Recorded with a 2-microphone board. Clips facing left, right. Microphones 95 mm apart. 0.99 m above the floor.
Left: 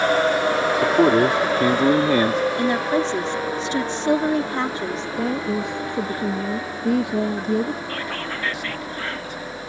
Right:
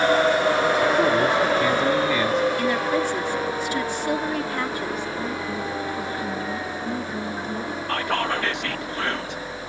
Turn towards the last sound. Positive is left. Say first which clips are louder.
# right 5 dB
turn(degrees=-65)  # may be behind; listen again after turning